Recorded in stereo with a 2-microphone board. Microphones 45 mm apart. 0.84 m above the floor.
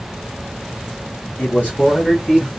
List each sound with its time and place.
1.4 s a man speaking: 40° left (ahead or behind), 1.0 m; by 2.5 s 10° left (ahead or behind), 1.3 m